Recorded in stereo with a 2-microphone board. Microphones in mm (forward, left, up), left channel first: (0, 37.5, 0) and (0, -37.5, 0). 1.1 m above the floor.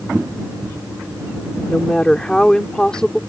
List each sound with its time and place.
1.7 s a woman speaking: 10° left (ahead or behind)